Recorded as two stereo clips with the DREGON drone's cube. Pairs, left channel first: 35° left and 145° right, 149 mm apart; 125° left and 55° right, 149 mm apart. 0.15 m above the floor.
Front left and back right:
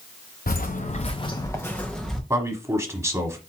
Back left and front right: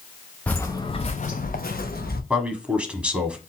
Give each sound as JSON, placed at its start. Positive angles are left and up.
{"t": 0.5, "sound": "footsteps", "azimuth_deg": 45, "distance_m": 0.9}
{"t": 2.3, "sound": "a man speaking", "azimuth_deg": -125, "distance_m": 1.1}